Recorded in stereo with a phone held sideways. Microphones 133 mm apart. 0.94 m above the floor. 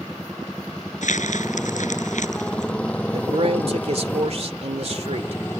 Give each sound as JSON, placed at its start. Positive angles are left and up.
{"t": 0.0, "sound": "a motorcycle", "side_deg": 5}
{"t": 1.0, "sound": "crumpling", "side_deg": 65}
{"t": 3.1, "sound": "a man speaking", "side_deg": -50}